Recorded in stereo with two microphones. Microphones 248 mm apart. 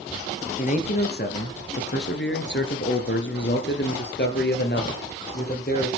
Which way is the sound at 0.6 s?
35° left (ahead or behind).